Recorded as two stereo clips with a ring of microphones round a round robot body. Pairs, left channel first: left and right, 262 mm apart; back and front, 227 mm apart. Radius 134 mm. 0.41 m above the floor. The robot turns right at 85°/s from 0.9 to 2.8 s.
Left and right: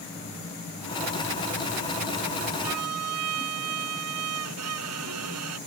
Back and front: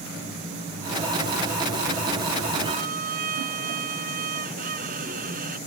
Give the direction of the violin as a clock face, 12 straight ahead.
3 o'clock.